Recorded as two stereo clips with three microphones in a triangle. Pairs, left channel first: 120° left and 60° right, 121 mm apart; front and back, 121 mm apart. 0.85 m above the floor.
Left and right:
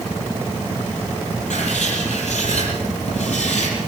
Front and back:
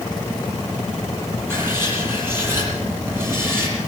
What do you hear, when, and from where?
1.5 s writing: 110° left, 8 m